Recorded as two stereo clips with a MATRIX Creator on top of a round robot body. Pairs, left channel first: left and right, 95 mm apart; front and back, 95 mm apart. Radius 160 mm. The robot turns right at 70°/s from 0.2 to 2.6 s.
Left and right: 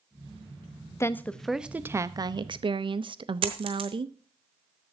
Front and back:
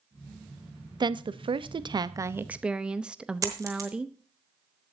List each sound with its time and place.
1.0 s a woman speaking: 145° left, 0.8 m; by 4.2 s 100° right, 0.8 m
3.4 s a dropped coin: 120° right, 1.1 m